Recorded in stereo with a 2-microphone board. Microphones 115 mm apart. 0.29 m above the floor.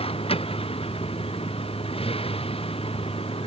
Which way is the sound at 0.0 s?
55° left (ahead or behind).